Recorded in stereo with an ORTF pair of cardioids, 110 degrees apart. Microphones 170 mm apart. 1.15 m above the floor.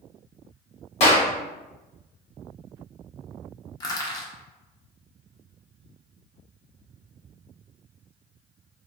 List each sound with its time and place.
1.0 s a clap: 35° left, 1.5 m
3.8 s crushing: 20° left, 0.9 m